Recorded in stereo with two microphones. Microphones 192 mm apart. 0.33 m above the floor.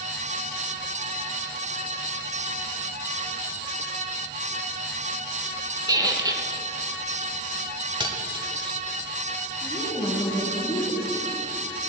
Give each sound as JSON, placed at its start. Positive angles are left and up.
{"t": 5.9, "sound": "a squeak", "side_deg": -20, "distance_m": 0.8}
{"t": 8.0, "sound": "cutlery clinking", "side_deg": -25, "distance_m": 1.2}
{"t": 9.6, "sound": "a woman speaking", "side_deg": 20, "distance_m": 3.0}